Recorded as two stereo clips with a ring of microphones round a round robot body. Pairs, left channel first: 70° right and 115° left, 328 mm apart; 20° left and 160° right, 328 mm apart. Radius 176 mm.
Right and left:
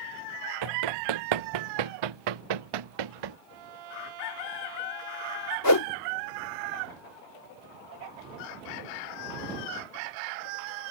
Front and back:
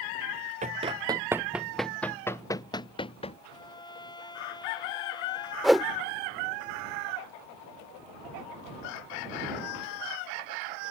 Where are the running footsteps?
135° left; by 3.4 s 95° left.